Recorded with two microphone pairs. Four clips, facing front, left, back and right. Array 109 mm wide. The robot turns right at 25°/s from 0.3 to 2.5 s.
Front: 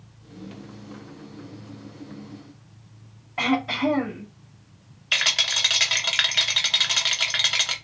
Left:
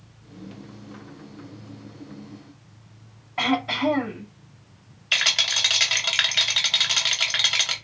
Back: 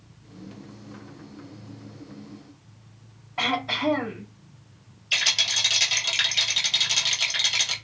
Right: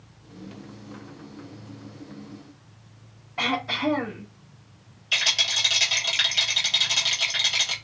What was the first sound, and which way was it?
Throat clearing, 55° left.